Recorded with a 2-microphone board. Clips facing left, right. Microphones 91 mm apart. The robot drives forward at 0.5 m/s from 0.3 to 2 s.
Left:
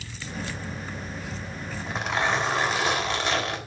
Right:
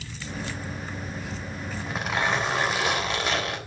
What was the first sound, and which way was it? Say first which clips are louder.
A zipper: left 1 dB; 5° right (ahead or behind).